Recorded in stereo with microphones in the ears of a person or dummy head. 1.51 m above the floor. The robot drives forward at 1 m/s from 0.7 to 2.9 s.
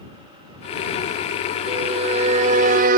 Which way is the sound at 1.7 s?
35° right (ahead or behind).